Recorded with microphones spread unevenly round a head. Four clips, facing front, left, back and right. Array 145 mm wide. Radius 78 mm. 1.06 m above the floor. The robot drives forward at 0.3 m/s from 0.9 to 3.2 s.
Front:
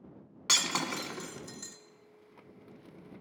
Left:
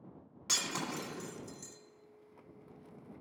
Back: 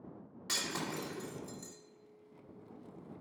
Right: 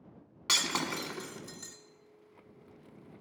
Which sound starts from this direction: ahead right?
Breaking glass, at 0.5 s.